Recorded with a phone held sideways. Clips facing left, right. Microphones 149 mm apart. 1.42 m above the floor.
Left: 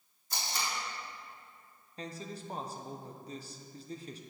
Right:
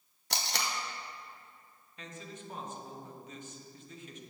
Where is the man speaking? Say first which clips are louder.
Left 4 dB; 35° left (ahead or behind), 0.9 m.